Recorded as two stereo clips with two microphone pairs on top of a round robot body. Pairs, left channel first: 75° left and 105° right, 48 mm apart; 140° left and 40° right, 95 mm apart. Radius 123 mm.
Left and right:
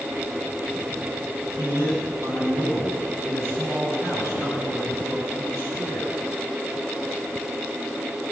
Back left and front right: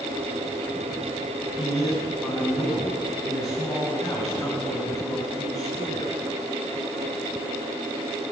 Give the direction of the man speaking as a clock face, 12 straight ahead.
4 o'clock.